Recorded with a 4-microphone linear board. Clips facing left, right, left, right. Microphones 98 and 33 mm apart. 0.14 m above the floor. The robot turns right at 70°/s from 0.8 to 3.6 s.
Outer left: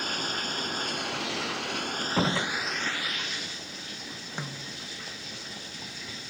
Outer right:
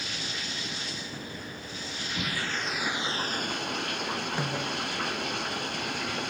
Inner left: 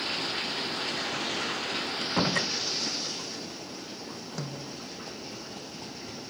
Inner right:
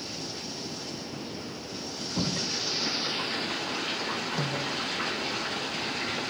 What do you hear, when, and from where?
0.0 s running water: 50° left; by 6.3 s 115° right
2.0 s a door slam: 85° left; by 2.5 s 120° left
4.4 s a snare drum: 5° right (ahead or behind)